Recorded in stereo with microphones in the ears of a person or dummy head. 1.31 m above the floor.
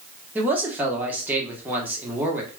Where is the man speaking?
5° right (ahead or behind), 0.9 m.